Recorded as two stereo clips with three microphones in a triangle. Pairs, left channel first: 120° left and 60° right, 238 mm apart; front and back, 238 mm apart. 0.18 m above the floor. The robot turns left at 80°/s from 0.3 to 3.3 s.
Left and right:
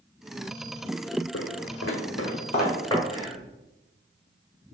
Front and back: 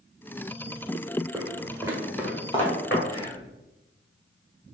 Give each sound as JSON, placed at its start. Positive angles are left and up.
{"t": 1.3, "sound": "footsteps", "azimuth_deg": 105, "distance_m": 0.6}
{"t": 3.1, "sound": "whispering", "azimuth_deg": -20, "distance_m": 1.5}